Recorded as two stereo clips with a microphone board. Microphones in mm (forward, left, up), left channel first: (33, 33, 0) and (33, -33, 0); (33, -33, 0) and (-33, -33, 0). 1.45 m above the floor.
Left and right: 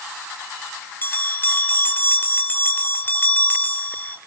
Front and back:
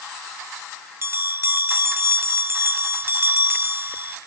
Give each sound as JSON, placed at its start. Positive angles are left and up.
{"t": 1.0, "sound": "a bell", "azimuth_deg": 140, "distance_m": 1.6}